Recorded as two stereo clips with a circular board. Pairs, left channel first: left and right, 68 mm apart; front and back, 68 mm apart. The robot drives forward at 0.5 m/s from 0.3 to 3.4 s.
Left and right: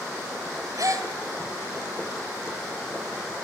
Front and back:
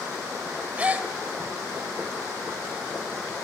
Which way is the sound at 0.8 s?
110° right.